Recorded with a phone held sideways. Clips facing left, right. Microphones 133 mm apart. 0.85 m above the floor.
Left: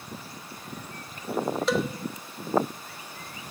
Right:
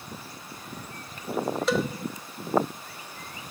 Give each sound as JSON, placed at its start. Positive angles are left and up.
{"t": 1.7, "sound": "a cowbell", "side_deg": 0, "distance_m": 0.7}